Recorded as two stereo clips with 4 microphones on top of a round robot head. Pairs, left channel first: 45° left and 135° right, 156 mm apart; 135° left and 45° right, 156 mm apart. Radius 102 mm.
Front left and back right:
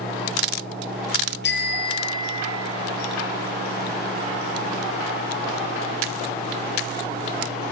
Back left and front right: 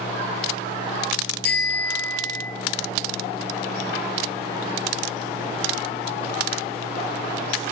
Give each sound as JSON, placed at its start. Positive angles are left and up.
{"t": 1.4, "sound": "a bicycle bell", "azimuth_deg": 60, "distance_m": 3.5}